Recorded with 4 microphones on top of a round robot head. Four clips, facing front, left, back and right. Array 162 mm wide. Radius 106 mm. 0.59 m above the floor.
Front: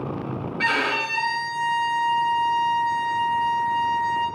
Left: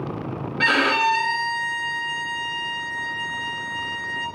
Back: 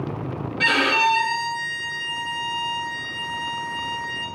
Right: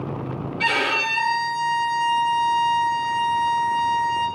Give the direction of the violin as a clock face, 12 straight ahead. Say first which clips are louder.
Left 4 dB, back 5 dB; 9 o'clock.